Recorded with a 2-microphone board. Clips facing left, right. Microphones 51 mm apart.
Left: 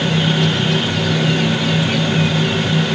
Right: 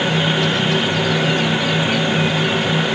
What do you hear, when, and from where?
Only background noise.